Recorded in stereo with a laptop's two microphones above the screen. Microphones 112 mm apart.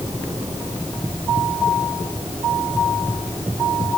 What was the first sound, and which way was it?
Only background noise.